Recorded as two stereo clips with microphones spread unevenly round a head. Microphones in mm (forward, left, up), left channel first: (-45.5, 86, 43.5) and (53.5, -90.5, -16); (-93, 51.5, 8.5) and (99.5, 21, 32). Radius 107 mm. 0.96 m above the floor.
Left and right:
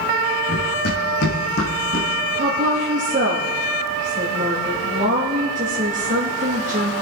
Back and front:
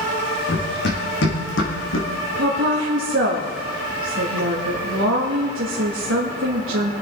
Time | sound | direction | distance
0.5 | running footsteps | 145° left | 5 m
2.4 | a woman speaking | 20° right | 1.8 m